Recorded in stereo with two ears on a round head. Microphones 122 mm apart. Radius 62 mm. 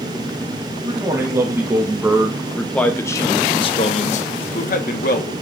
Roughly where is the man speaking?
Right.